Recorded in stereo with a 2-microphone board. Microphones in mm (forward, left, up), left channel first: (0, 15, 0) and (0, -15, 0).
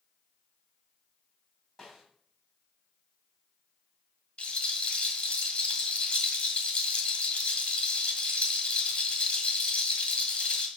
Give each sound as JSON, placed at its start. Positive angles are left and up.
{"t": 1.8, "sound": "a snare drum", "side_deg": 10, "distance_m": 3.0}
{"t": 4.4, "sound": "a rattle", "side_deg": 35, "distance_m": 1.7}